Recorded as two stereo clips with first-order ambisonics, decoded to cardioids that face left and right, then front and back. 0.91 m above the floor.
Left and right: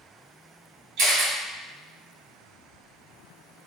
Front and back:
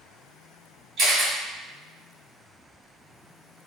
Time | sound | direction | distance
1.0 | a camera shutter | 125° right | 1.6 m